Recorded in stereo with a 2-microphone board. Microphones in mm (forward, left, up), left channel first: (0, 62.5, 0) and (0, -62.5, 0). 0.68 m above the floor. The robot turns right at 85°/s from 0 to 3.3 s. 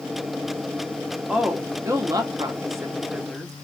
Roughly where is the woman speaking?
Centre.